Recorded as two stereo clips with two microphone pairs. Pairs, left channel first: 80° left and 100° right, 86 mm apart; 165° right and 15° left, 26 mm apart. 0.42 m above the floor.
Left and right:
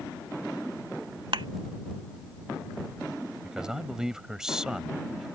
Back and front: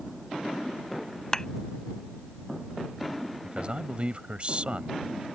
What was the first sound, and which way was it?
A thud, 100° right.